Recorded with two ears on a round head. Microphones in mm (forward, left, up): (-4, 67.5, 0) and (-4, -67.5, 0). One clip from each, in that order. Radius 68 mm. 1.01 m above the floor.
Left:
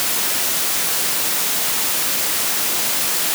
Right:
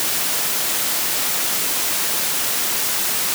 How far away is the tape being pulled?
I don't hear tape being pulled.